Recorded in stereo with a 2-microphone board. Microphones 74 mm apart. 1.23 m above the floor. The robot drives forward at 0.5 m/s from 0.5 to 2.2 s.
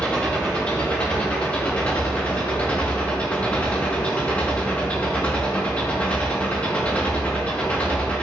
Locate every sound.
0.0 s an engine running: 15° left (ahead or behind), 6 m; by 8.2 s 20° left (ahead or behind), 5.5 m